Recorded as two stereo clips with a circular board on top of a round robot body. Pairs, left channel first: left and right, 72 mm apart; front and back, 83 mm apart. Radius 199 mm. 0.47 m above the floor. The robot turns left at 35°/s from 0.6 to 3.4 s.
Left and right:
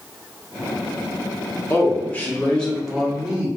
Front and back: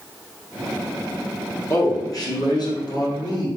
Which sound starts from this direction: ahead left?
A man speaking, at 1.7 s.